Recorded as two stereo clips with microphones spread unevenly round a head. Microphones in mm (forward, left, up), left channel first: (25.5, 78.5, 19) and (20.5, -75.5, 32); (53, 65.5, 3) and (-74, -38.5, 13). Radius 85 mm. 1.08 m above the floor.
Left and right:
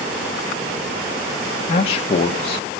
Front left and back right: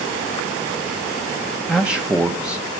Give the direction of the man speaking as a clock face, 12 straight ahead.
8 o'clock.